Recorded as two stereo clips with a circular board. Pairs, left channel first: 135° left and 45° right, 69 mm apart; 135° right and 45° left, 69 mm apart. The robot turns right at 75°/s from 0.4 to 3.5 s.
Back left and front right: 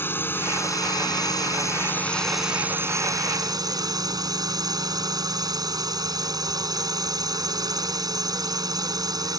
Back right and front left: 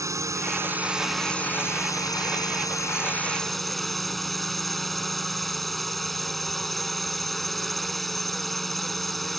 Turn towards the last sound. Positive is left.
turn(degrees=-50)